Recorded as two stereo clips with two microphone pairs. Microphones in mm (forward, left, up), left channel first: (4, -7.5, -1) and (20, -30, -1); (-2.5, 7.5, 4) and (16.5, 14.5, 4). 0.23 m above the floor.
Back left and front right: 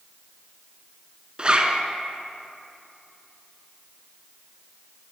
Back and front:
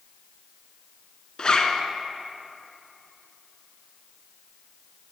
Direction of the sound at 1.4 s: 110° right.